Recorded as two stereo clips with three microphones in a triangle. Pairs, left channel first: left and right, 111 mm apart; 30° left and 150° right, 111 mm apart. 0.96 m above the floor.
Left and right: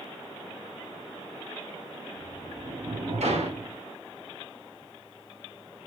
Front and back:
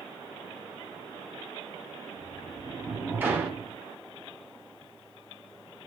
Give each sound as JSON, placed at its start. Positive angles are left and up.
{"t": 2.2, "sound": "a sliding door", "azimuth_deg": -80, "distance_m": 1.7}